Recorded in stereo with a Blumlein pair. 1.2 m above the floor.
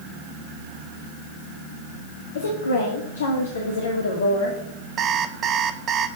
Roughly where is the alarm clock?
Ahead right.